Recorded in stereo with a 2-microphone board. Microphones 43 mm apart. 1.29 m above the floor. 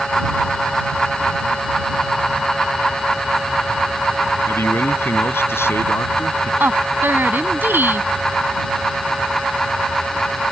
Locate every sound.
4.5 s a man speaking: 85° left
6.6 s a woman speaking: 55° right (ahead or behind)